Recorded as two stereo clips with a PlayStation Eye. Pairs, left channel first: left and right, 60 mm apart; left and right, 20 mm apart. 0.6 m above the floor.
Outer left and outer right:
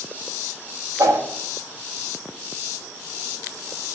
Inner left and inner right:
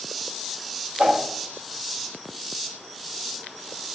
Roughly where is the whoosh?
Right.